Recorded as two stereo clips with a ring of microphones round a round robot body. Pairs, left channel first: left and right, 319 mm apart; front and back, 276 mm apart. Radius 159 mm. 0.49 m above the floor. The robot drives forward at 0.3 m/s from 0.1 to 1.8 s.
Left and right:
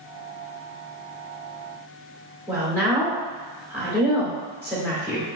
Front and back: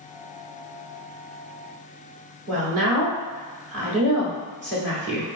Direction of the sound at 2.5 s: 175° right.